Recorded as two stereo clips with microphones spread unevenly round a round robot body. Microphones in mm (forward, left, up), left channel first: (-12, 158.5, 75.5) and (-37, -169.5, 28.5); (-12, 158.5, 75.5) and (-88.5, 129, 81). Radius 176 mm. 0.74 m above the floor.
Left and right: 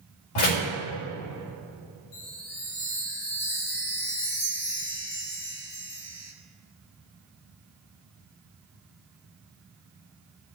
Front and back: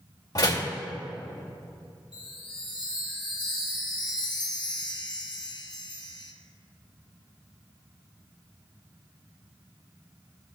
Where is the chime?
50° left, 1.8 m.